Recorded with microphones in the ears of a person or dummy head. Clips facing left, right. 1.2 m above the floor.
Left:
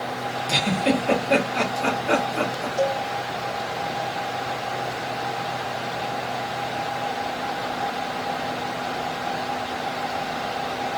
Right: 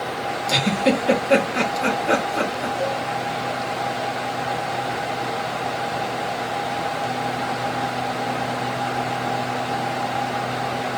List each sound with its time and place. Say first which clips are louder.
0.5 s a giggle: right 2 dB; 25° right (ahead or behind), 1.5 m
2.8 s a cowbell: left 4 dB; 75° left (ahead or behind), 1.5 m